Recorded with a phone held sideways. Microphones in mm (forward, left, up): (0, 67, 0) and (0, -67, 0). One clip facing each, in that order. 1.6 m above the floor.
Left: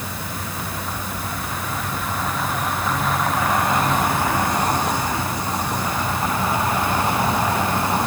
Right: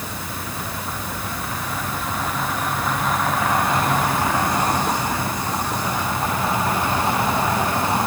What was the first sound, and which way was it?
Only background noise.